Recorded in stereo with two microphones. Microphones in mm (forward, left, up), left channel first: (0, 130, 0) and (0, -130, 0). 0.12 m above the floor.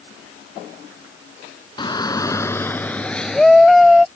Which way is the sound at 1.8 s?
20° left (ahead or behind).